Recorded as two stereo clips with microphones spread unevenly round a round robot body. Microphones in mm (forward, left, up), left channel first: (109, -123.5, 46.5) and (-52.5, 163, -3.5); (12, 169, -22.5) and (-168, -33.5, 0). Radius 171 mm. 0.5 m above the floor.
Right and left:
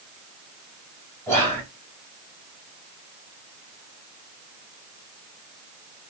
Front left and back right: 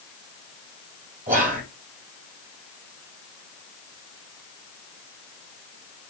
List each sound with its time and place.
1.3 s whispering: 155° right, 1.4 m